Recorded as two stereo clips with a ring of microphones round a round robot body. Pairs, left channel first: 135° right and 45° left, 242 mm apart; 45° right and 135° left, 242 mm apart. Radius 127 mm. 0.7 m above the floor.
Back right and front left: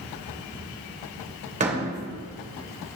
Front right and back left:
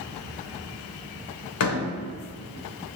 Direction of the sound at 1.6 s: 20° right.